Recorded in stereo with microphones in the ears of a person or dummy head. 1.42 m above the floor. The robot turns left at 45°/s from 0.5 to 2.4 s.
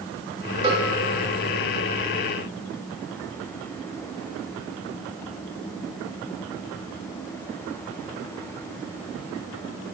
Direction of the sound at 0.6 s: 30° right (ahead or behind).